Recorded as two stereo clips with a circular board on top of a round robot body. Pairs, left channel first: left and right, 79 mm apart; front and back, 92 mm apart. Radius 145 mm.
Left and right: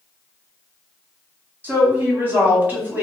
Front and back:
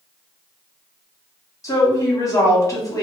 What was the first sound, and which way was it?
A woman speaking, 35° right.